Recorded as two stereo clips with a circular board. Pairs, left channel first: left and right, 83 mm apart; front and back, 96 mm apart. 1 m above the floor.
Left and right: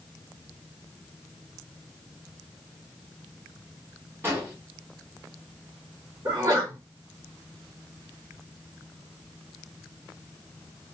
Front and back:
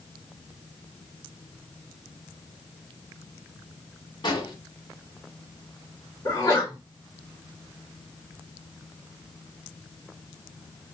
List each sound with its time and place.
4.2 s an explosion: 30° right, 1.4 m
6.2 s a sneeze: 55° right, 1.8 m